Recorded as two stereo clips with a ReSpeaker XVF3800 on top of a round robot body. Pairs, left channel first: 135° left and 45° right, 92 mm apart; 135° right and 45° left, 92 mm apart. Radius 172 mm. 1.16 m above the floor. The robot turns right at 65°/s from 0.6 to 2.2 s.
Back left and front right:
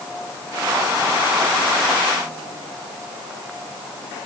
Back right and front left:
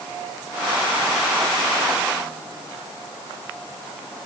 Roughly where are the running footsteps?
No running footsteps in this recording.